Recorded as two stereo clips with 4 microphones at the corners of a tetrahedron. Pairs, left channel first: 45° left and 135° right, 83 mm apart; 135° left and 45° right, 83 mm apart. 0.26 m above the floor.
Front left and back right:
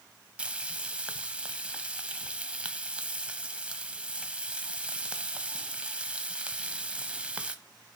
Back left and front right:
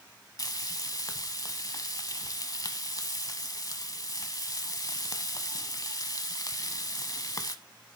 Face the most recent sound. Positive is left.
turn(degrees=155)